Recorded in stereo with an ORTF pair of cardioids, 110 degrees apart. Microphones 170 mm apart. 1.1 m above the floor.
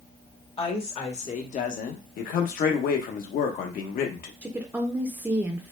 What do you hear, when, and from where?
0.6 s a woman speaking: 35° left, 1.3 m; by 2.0 s 60° left, 0.7 m
2.2 s a man speaking: 60° left, 0.9 m
4.4 s a woman speaking: 10° right, 0.5 m